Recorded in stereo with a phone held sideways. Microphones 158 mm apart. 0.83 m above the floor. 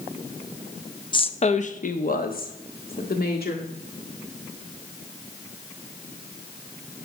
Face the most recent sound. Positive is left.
turn(degrees=75)  # may be behind; listen again after turning